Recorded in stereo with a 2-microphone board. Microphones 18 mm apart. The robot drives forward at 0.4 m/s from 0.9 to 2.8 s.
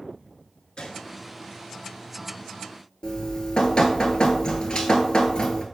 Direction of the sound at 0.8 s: 80° left.